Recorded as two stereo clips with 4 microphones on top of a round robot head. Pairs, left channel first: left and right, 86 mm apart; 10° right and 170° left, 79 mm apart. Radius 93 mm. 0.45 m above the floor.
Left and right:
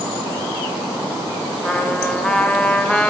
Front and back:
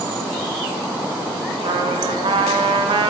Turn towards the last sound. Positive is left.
turn(degrees=170)